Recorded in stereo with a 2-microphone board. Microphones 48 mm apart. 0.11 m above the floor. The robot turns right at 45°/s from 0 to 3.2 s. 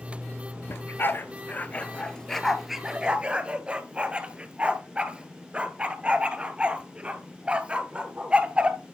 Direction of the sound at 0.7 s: 55° left (ahead or behind).